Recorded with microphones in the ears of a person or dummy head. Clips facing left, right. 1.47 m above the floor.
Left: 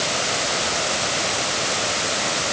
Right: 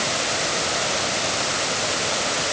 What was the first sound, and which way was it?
Only background noise.